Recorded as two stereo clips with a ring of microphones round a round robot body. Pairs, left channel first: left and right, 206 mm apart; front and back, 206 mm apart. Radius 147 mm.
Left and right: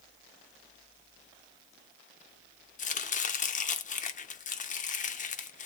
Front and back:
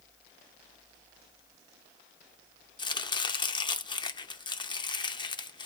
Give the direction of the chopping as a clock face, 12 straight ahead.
10 o'clock.